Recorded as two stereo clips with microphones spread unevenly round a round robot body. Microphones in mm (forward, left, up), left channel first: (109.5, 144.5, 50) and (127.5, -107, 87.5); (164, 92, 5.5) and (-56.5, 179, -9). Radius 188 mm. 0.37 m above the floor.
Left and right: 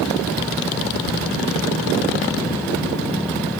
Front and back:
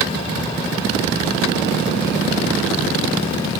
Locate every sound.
1.0 s keys jangling: 15° left, 7.5 m